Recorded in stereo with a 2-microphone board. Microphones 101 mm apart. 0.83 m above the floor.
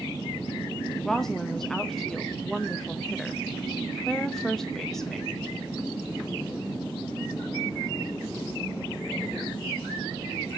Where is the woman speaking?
5° left (ahead or behind), 0.6 m.